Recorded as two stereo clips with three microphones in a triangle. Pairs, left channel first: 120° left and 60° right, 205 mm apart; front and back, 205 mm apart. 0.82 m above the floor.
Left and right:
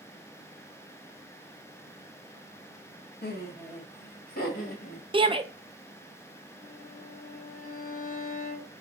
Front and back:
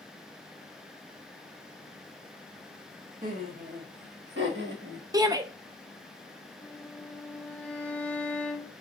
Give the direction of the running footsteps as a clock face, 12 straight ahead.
I don't hear running footsteps.